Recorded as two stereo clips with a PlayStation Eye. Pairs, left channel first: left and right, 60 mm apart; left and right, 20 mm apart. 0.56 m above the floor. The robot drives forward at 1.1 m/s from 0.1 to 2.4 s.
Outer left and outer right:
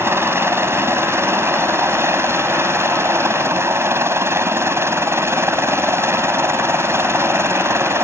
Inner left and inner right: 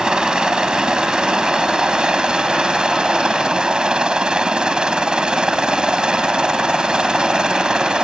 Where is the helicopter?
45° right (ahead or behind).